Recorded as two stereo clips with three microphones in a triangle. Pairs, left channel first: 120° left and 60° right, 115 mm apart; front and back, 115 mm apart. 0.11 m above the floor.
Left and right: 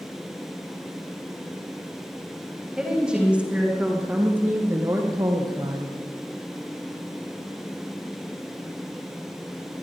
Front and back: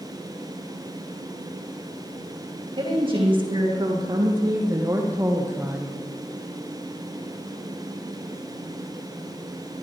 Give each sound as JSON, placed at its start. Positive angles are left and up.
{"t": 2.8, "sound": "a woman speaking", "azimuth_deg": -145, "distance_m": 6.0}